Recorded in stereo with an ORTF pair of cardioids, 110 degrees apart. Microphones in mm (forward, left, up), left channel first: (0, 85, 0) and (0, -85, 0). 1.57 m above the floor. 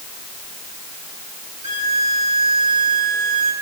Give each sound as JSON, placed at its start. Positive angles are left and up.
{"t": 1.6, "sound": "a violin", "azimuth_deg": -45, "distance_m": 5.5}